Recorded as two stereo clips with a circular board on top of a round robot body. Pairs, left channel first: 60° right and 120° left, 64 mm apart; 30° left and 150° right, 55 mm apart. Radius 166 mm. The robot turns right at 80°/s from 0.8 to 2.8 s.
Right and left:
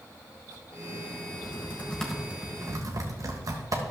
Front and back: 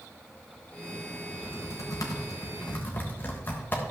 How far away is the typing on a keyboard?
About 1.2 m.